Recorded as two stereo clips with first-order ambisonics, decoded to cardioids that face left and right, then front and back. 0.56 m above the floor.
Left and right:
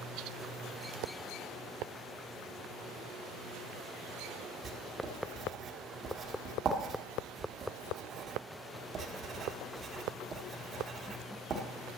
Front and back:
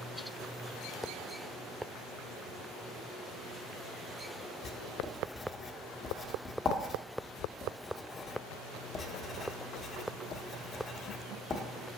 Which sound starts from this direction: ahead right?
Writing, at 4.6 s.